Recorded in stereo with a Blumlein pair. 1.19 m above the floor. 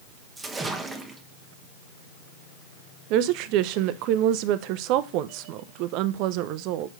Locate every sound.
0.4 s a splash: 10° right, 1.1 m
3.1 s a woman speaking: 40° right, 0.6 m